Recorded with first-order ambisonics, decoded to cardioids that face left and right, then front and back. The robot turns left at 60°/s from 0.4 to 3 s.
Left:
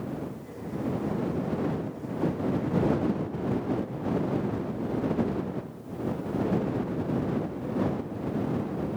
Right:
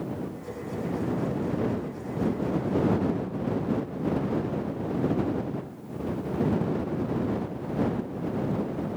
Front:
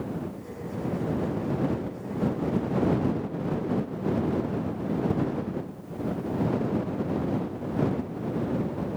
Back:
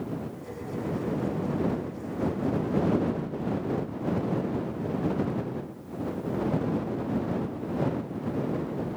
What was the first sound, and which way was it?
Only background noise.